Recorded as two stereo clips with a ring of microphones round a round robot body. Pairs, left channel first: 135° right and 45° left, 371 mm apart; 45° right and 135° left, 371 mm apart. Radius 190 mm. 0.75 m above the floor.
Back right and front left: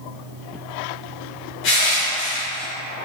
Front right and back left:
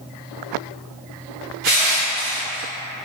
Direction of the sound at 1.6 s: 165° left.